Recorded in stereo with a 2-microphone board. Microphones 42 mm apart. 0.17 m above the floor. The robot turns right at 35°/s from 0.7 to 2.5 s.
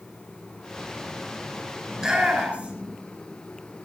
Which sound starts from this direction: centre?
A shout, at 1.9 s.